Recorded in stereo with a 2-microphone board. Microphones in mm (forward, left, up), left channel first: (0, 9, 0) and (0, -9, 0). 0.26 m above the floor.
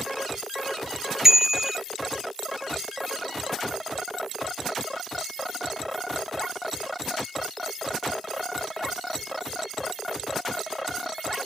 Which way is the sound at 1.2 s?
25° right (ahead or behind).